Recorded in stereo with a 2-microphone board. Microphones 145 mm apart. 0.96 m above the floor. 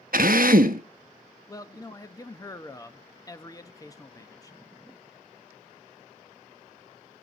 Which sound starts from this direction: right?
A drill, at 0.1 s.